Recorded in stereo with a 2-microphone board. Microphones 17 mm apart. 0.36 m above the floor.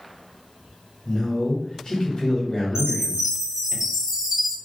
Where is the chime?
40° right (ahead or behind), 1.8 m.